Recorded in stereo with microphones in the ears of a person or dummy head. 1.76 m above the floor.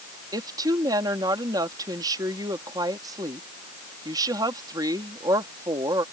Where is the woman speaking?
20° right (ahead or behind).